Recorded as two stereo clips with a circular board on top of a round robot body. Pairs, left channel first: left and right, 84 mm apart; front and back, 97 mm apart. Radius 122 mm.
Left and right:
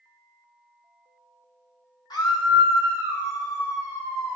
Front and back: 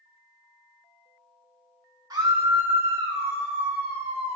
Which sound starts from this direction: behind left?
A scream, at 2.1 s.